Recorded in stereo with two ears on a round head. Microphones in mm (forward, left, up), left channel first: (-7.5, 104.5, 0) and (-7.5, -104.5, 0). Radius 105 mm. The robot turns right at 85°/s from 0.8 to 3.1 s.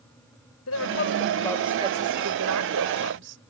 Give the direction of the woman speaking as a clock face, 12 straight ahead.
8 o'clock.